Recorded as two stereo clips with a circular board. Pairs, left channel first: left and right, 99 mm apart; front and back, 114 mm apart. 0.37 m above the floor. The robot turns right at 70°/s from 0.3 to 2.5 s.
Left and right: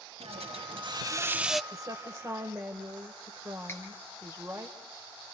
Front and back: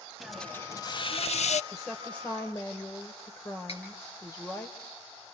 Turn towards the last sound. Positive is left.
turn(degrees=25)